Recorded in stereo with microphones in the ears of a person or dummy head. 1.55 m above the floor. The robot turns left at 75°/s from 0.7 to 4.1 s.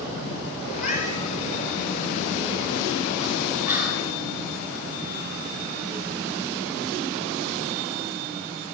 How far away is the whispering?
About 5 m.